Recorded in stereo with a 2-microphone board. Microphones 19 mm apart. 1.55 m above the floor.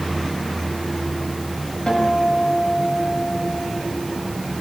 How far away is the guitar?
About 5.5 m.